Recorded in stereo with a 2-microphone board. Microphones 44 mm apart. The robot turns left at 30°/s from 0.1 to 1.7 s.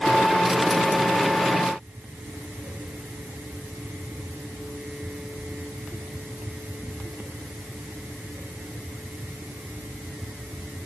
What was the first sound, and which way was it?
Only background noise.